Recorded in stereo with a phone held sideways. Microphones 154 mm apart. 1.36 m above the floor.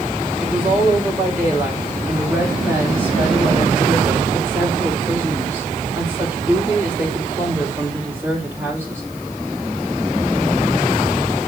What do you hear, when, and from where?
0.4 s a woman speaking: 15° right (ahead or behind), 5.5 m